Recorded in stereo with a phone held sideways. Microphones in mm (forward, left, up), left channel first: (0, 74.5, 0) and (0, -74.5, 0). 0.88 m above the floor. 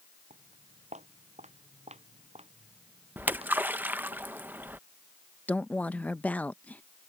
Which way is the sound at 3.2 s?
10° right (ahead or behind).